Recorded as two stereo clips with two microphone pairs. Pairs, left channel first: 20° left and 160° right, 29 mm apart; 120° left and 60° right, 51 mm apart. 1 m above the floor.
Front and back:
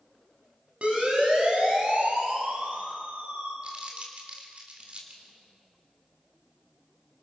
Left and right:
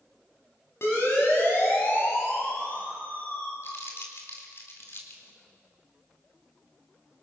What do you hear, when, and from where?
0.8 s a siren: 155° left, 6.5 m; by 3.5 s straight behind, 6 m
3.6 s crumpling: 155° left, 4 m